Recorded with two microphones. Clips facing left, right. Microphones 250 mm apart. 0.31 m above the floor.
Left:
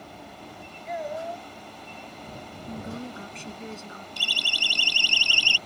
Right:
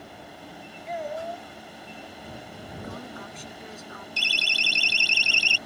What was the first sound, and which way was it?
A child speaking, centre (ahead or behind).